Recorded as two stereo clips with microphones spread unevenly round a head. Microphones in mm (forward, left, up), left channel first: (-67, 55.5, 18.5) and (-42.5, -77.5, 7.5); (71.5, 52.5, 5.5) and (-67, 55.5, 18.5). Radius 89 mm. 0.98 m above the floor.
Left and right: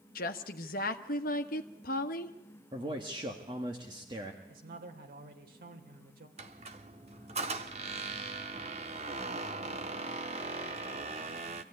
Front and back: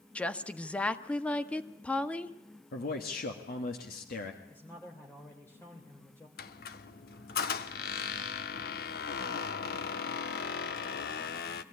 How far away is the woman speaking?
About 1.3 m.